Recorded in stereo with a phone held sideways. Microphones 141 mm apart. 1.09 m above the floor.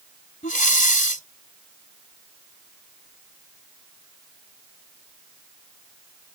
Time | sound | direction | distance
0.4 | breathing | 65° left (ahead or behind) | ?